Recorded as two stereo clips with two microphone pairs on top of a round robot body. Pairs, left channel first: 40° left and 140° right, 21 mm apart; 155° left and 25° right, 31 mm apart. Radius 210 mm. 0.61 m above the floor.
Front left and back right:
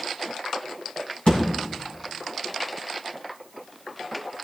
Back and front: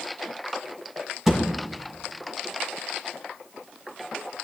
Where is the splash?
I don't hear a splash.